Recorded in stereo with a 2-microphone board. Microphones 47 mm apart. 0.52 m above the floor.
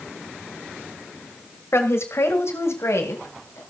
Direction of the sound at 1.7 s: 65° left (ahead or behind).